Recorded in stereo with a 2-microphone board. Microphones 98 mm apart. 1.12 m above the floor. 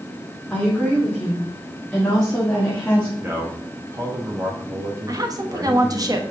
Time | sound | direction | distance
0.5 | a woman speaking | centre (ahead or behind) | 2.5 m
3.2 | a man speaking | 30° right (ahead or behind) | 1.2 m
5.1 | a woman speaking | 40° right (ahead or behind) | 1.2 m